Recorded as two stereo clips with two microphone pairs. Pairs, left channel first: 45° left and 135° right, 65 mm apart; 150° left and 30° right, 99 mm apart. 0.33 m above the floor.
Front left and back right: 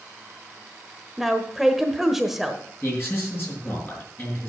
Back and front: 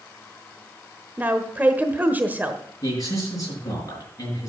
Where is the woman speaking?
50° right, 1.0 m.